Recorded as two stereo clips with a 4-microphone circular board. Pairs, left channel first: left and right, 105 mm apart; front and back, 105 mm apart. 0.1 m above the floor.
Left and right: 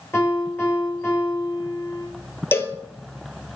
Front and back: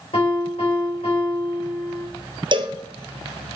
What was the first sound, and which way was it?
A piano, 25° left.